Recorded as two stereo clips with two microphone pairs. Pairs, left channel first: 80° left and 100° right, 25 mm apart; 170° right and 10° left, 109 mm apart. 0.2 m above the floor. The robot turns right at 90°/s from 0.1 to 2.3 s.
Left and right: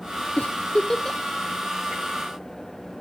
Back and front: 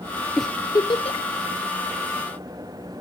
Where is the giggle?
95° left, 0.9 m; by 1.2 s 170° left, 0.9 m.